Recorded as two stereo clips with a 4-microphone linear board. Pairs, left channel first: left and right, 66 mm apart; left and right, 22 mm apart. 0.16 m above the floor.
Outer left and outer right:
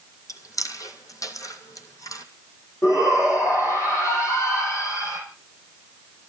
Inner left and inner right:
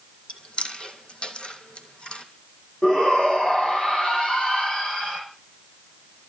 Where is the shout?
50° left (ahead or behind), 7 m.